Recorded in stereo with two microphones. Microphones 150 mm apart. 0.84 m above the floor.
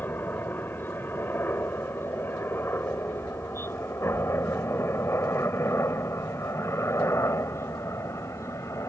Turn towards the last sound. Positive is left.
turn(degrees=20)  # may be behind; listen again after turning